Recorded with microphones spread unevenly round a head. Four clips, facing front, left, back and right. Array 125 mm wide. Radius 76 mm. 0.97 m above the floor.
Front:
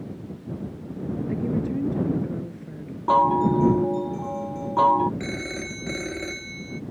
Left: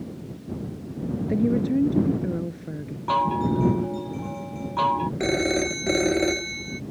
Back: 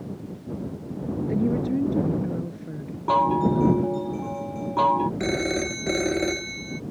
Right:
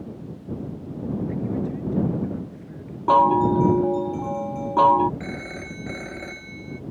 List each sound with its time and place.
1.3 s a woman speaking: 90° left
3.1 s a chime: 115° right
5.2 s a phone ringing: 110° left